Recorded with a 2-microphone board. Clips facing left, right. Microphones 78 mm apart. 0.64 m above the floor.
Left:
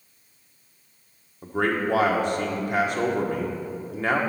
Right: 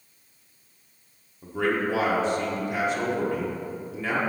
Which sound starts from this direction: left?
A man speaking, at 1.4 s.